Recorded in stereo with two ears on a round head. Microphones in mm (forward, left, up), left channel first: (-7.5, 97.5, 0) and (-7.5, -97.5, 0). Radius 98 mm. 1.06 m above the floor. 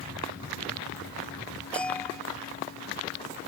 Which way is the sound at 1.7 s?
5° left (ahead or behind).